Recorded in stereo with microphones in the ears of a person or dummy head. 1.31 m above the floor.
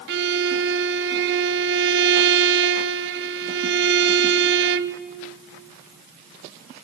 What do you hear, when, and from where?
0.1 s a violin: 55° right (ahead or behind), 0.7 m